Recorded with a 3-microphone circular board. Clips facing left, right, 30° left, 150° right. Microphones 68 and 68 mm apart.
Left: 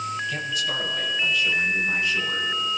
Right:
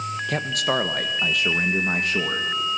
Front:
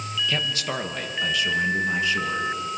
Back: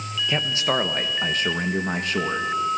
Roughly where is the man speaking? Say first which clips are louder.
Right 4 dB, back 7 dB; right.